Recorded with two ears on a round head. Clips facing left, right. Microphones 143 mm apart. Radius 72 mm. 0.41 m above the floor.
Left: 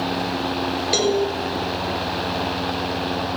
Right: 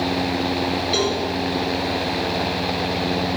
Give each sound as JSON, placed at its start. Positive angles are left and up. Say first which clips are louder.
{"t": 0.9, "sound": "a cowbell", "louder": "left 6 dB", "side_deg": 55, "distance_m": 0.9}